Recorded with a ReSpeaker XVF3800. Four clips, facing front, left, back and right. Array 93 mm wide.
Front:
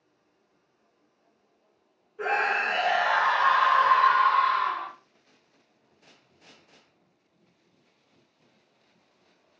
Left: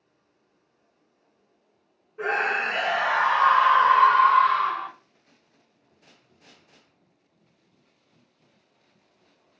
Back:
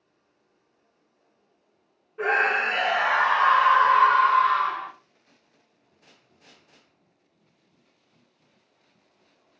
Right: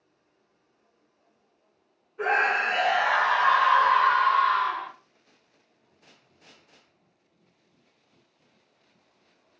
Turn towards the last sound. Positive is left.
turn(degrees=100)